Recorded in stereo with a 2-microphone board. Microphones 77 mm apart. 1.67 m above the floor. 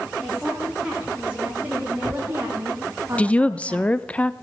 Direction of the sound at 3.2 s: 15° left (ahead or behind).